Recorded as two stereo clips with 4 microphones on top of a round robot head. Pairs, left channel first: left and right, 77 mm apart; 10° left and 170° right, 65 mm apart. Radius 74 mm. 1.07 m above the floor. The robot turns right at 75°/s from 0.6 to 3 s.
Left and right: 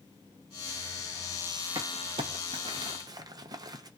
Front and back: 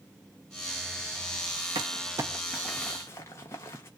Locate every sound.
1.8 s crumpling: 145° right, 0.7 m; by 3.9 s 50° right, 0.7 m